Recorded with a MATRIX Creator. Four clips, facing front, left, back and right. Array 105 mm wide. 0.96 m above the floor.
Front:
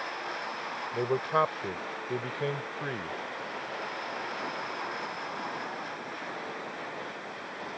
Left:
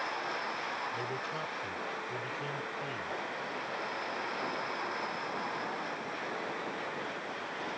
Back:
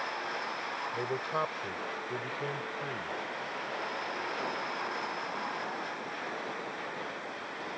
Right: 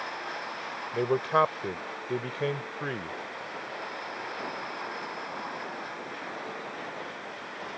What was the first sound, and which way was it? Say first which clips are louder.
A man speaking: right 12 dB, front 7 dB; 65° right.